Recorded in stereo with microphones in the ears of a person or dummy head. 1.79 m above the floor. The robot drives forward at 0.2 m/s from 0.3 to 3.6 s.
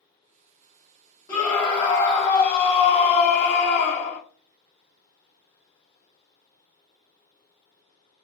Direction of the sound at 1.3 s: 20° left (ahead or behind).